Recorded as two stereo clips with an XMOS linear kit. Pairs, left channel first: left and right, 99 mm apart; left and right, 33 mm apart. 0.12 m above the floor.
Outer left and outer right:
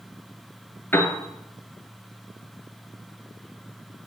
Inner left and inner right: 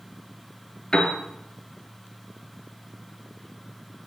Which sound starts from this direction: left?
A piano, at 0.9 s.